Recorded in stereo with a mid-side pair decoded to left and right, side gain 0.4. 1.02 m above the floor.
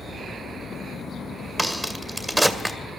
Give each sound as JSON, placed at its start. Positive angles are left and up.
{"t": 1.6, "sound": "a crack", "azimuth_deg": -20, "distance_m": 2.0}